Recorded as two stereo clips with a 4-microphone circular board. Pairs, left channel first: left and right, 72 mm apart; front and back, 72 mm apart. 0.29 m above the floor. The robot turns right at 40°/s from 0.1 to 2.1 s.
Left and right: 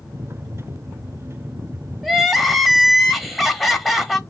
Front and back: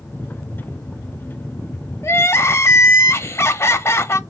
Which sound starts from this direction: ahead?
Crying, at 2.0 s.